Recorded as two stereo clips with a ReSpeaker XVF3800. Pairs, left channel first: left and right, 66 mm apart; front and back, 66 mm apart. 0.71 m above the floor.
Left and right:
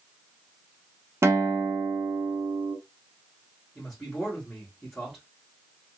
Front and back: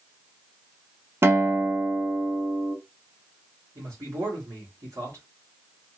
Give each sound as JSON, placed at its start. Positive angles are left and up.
{"t": 1.2, "sound": "a guitar", "azimuth_deg": -130, "distance_m": 0.7}
{"t": 3.8, "sound": "a man speaking", "azimuth_deg": -170, "distance_m": 2.0}